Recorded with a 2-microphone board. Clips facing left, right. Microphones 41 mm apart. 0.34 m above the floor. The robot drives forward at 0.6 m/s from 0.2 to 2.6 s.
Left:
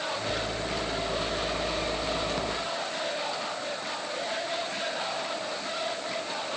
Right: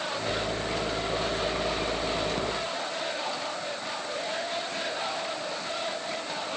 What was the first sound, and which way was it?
Only background noise.